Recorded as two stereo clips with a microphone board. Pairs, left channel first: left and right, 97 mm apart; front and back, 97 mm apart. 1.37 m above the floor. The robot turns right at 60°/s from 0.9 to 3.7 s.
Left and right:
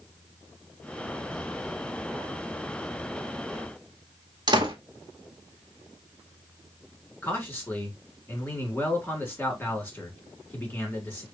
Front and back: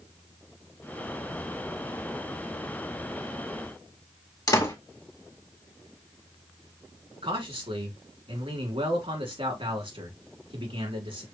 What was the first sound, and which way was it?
A door slam, 50° right.